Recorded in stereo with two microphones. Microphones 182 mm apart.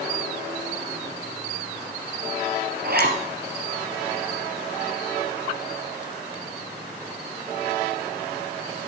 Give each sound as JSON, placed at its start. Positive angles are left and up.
{"t": 2.8, "sound": "a zipper", "side_deg": -60, "distance_m": 3.0}